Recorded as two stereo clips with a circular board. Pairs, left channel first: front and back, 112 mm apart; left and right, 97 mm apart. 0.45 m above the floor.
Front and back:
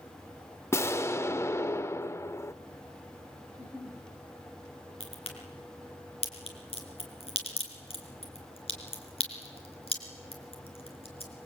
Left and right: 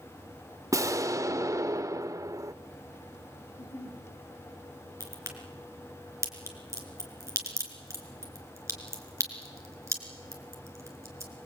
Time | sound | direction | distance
0.7 | an explosion | 55° right | 0.8 m
3.5 | a giggle | 65° left | 4.5 m
5.0 | a crack | 30° right | 4 m